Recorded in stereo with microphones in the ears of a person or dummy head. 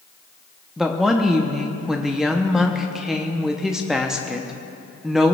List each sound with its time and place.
0.8 s a woman speaking: centre (ahead or behind), 0.6 m